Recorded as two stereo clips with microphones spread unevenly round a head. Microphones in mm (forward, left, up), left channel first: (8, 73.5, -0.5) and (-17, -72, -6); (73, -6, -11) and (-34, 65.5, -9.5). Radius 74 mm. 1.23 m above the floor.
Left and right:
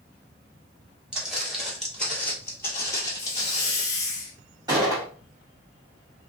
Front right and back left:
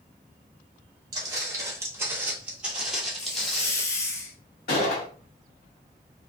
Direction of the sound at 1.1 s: Straight behind.